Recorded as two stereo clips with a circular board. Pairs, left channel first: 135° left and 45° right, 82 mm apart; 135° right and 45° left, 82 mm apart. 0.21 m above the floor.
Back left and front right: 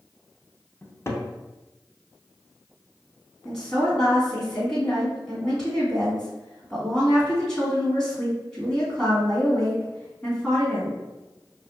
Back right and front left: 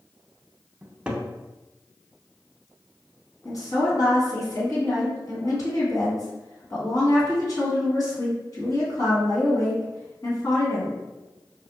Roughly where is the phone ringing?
I don't hear a phone ringing.